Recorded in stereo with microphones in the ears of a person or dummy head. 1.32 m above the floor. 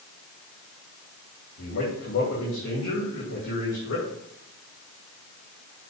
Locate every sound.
1.6 s a man speaking: 65° left (ahead or behind), 2.5 m